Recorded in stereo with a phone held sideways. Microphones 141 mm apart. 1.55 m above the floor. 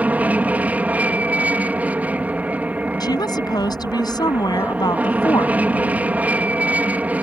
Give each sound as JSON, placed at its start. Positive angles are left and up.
{"t": 0.0, "sound": "an aircraft", "side_deg": -10}
{"t": 3.0, "sound": "a woman speaking", "side_deg": 30}